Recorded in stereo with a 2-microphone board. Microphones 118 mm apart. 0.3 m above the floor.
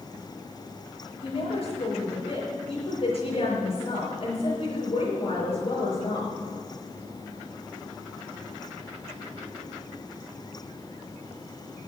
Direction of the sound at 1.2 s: 50° left (ahead or behind).